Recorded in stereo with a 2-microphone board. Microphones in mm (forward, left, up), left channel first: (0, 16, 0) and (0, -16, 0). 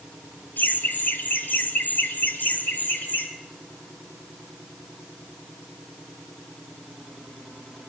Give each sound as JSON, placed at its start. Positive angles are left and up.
{"t": 0.6, "sound": "laughter", "side_deg": 75, "distance_m": 2.0}